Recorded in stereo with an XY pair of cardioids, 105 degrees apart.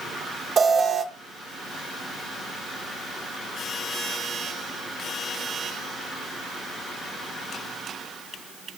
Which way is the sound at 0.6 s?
40° right.